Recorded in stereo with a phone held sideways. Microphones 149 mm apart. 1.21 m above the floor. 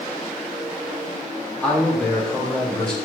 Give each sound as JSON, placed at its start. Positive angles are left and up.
{"t": 1.6, "sound": "a man speaking", "side_deg": 5, "distance_m": 3.0}